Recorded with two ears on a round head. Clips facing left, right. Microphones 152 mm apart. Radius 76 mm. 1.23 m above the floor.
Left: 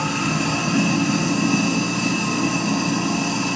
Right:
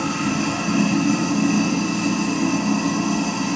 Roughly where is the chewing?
No chewing in this recording.